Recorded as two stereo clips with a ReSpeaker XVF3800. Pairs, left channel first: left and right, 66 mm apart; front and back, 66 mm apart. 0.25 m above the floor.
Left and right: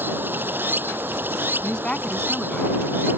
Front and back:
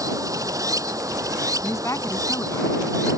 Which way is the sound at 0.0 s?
150° right.